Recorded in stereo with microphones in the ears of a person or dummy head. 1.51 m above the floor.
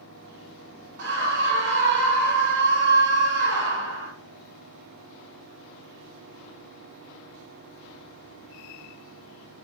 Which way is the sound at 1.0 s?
65° right (ahead or behind).